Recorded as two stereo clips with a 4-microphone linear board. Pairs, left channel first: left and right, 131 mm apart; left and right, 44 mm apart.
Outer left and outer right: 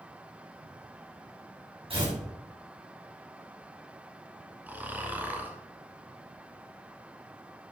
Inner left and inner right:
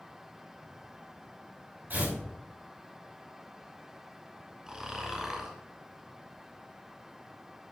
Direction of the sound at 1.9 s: 45° right (ahead or behind).